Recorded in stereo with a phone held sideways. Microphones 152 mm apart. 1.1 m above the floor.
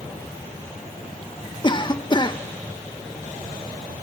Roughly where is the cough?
Left.